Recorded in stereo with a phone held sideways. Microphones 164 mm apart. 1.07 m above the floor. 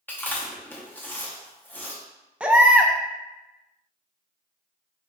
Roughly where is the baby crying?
Centre.